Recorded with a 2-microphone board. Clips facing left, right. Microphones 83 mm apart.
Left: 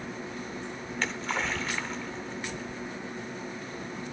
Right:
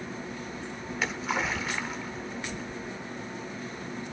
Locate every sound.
0.9 s a splash: 5° right (ahead or behind), 1.2 m